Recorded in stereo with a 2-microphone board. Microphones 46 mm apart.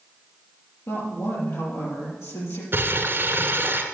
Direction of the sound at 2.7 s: 50° right (ahead or behind).